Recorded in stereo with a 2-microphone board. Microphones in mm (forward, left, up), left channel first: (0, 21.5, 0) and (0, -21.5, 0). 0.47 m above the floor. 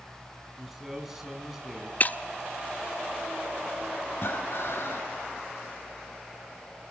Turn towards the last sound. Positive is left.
turn(degrees=65)  # may be behind; listen again after turning